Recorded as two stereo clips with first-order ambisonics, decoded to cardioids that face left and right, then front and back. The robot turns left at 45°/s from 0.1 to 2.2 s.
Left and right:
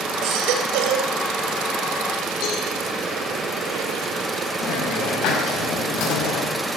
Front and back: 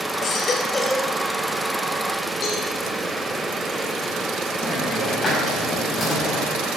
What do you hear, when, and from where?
0.2 s a baby crying: 55° right, 3 m; by 1.1 s 95° right, 3 m
2.4 s a cowbell: 50° left, 7.5 m
4.6 s a hiss: 65° left, 5.5 m